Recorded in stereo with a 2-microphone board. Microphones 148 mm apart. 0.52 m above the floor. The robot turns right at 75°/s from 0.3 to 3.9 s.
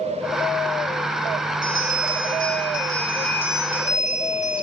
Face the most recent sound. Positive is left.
turn(degrees=50)